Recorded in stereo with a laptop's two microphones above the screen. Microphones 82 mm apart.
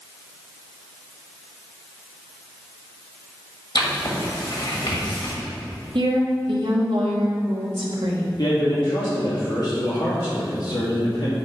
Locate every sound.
3.8 s writing: 65° left (ahead or behind), 1.4 m
6.0 s a woman speaking: 80° right, 1.3 m
8.4 s a man speaking: 55° left (ahead or behind), 2 m